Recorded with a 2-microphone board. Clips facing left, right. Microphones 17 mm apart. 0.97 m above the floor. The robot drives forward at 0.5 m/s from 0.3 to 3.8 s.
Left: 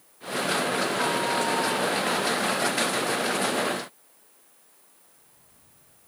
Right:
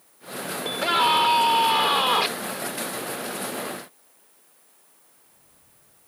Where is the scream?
65° right (ahead or behind); by 2.3 s 75° right (ahead or behind).